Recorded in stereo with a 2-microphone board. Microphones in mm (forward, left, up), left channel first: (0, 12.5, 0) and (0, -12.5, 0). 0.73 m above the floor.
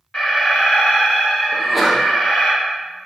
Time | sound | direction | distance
0.1 | an alarm | 45° left (ahead or behind) | 1.7 m
1.5 | a sneeze | 5° left (ahead or behind) | 0.6 m